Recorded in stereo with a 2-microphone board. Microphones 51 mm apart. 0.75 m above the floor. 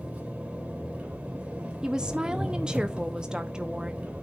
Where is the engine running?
25° right (ahead or behind), 3 m.